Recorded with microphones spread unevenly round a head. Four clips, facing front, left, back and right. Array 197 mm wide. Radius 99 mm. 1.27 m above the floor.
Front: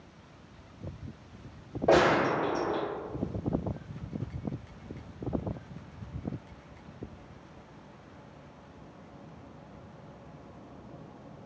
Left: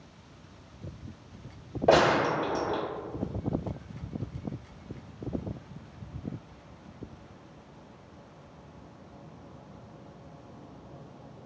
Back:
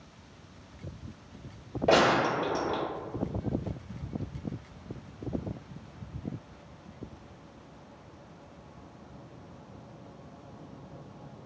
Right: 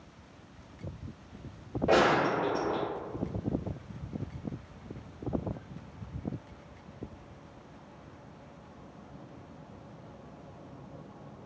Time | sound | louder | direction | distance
1.9 | a gunshot | left 3 dB, even | 95° left | 1.0 m